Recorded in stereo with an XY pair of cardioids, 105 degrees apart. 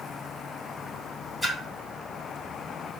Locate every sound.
1.4 s a splash: 5° right, 1.6 m